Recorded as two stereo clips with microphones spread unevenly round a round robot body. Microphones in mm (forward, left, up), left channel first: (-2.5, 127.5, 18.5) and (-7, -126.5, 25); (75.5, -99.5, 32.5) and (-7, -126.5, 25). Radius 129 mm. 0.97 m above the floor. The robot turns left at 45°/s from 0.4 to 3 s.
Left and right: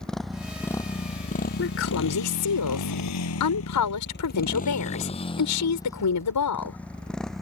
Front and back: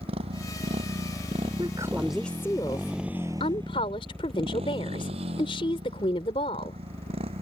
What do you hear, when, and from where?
0.0 s a motorcycle: 175° left; by 7.4 s straight behind
1.6 s a woman speaking: 135° left; by 6.8 s 70° left